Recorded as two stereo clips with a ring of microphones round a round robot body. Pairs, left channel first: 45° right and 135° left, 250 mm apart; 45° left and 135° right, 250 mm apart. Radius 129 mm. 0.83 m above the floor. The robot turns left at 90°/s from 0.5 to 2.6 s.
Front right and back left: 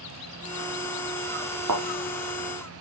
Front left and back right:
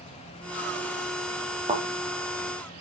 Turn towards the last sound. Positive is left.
turn(degrees=75)